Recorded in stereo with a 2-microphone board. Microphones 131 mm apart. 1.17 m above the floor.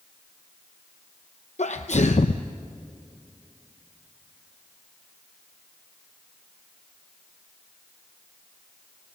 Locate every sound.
1.6 s a sneeze: 60° left (ahead or behind), 0.7 m